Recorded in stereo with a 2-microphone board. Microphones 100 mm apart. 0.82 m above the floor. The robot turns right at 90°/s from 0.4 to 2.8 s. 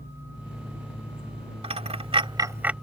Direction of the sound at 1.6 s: 65° right (ahead or behind).